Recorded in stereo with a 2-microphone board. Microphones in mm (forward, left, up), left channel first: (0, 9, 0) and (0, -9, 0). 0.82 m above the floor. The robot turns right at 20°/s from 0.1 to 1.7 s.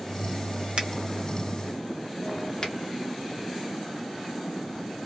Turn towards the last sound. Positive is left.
turn(degrees=35)  # may be behind; listen again after turning